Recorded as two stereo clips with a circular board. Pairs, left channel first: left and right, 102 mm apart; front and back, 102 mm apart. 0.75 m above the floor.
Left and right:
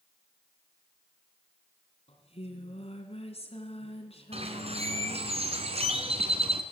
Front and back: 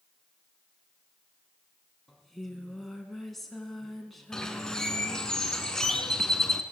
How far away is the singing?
About 3.5 m.